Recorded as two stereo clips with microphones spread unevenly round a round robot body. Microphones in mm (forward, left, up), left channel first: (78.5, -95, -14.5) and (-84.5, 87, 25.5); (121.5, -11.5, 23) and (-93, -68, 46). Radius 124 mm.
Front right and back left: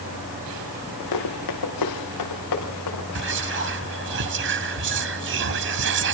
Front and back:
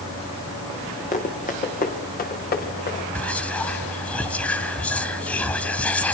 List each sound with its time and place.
1.1 s running footsteps: 45° right, 4.5 m; by 3.0 s 35° right, 6.5 m
3.1 s whispering: 95° left, 0.9 m